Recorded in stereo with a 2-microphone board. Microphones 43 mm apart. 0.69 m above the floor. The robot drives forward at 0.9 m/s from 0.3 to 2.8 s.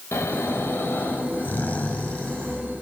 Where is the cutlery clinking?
No cutlery clinking in this recording.